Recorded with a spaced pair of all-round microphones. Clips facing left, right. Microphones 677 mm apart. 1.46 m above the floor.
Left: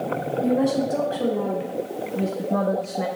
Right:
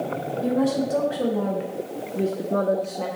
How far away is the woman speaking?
About 1.7 m.